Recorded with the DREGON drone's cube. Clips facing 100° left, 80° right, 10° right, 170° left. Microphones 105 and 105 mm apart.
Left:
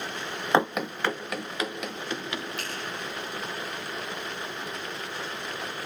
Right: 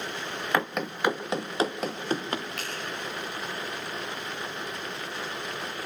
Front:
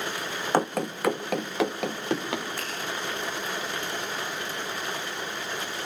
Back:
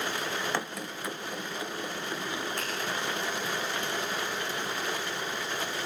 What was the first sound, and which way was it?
Running footsteps, 35° left.